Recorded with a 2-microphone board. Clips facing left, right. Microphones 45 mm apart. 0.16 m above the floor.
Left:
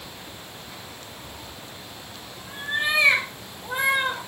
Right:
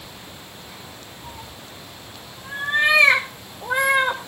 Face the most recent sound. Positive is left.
turn(degrees=-75)  # may be behind; listen again after turning